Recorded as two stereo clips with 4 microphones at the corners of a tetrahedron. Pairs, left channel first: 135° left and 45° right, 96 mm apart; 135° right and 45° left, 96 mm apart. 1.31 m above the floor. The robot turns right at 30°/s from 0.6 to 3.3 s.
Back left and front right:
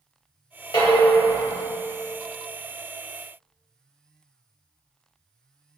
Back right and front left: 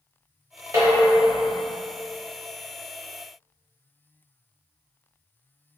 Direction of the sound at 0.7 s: 100° left.